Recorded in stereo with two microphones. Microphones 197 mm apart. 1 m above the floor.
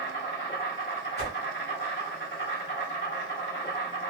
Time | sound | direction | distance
0.0 | an insect | 65° left (ahead or behind) | 1.6 m
1.2 | a whoosh | 55° left (ahead or behind) | 2 m